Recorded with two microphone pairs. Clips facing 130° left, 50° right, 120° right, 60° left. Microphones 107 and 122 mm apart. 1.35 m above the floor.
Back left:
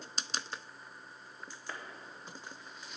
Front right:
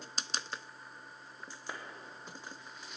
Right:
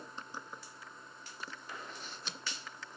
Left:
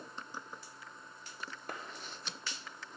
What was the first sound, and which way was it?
A clap, 25° left.